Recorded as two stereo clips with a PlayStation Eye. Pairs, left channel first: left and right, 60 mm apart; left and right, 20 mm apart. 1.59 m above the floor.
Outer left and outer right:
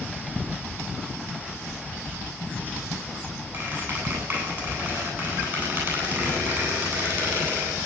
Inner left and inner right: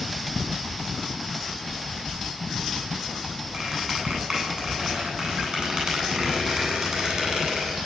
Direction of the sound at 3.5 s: 40° right (ahead or behind).